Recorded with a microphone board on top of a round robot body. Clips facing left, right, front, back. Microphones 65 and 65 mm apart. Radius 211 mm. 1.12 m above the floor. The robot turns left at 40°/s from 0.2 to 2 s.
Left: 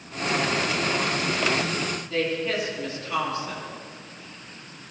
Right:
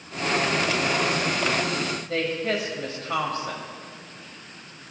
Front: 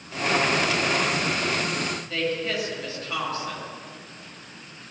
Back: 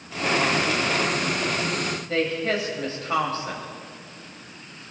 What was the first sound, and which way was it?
A woman speaking, 125° right.